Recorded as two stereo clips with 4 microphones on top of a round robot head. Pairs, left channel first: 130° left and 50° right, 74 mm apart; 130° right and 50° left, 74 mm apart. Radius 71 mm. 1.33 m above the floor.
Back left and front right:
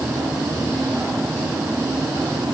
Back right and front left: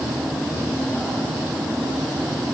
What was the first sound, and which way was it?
Only background noise.